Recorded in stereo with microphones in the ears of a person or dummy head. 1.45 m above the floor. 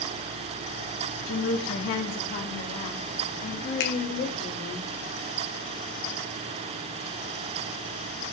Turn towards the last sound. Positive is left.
turn(degrees=60)  # may be behind; listen again after turning